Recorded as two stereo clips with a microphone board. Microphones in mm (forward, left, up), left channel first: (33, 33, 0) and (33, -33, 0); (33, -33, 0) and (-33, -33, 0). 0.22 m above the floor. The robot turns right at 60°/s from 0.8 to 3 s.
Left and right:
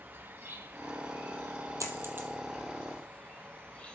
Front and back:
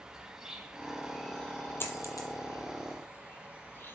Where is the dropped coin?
55° right, 1.3 m; by 2.3 s 25° right, 1.3 m.